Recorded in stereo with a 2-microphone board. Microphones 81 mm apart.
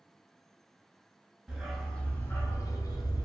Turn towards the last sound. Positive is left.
turn(degrees=65)  # may be behind; listen again after turning